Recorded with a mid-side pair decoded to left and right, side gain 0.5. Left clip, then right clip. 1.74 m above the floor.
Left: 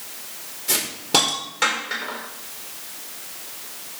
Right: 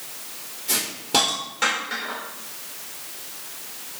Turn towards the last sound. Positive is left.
turn(degrees=25)